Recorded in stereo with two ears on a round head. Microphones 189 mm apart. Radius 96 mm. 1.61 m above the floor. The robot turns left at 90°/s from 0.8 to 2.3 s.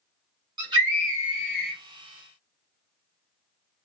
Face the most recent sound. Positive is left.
turn(degrees=70)